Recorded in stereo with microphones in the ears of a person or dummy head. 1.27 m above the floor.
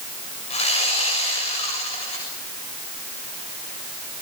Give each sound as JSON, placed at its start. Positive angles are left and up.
{"t": 0.5, "sound": "sawing", "side_deg": 35, "distance_m": 6.5}